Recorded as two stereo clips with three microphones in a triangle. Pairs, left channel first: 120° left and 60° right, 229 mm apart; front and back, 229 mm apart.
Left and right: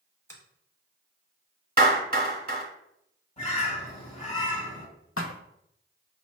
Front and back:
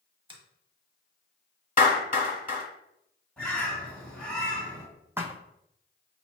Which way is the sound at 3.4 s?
85° left.